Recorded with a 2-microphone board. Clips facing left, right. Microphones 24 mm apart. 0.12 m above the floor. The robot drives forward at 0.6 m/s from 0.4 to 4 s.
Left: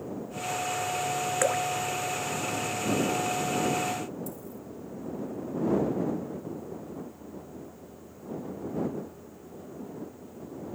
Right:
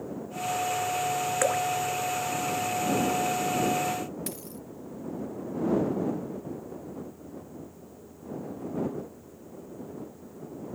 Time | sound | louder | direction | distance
1.4 | dripping | even | centre (ahead or behind) | ?
4.3 | a dropped coin | right 1 dB | 65° right (ahead or behind) | ?